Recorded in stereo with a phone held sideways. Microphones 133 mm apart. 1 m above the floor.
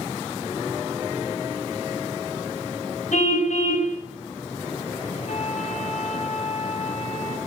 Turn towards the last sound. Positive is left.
turn(degrees=60)  # may be behind; listen again after turning